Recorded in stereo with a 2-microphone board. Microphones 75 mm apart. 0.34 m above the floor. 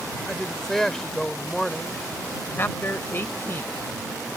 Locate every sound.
0.3 s a woman speaking: 5° left (ahead or behind)
2.6 s a man speaking: 35° left (ahead or behind)